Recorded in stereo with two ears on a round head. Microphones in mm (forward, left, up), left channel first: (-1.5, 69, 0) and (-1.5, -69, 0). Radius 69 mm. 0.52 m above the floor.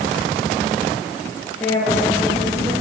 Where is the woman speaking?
15° left (ahead or behind), 10 m; by 2.8 s 20° left (ahead or behind), 9 m.